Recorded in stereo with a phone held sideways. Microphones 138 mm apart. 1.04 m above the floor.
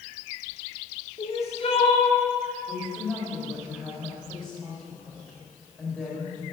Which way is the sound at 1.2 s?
50° left (ahead or behind).